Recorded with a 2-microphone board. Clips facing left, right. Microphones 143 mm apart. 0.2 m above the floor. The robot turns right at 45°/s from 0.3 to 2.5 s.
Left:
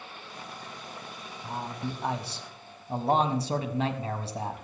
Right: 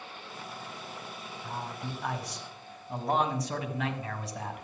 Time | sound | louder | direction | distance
1.4 | a man speaking | left 4 dB | 15° left (ahead or behind) | 1.0 m